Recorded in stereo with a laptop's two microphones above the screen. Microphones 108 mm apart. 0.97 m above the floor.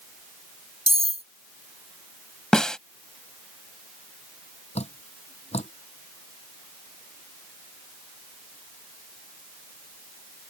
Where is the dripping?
70° left (ahead or behind).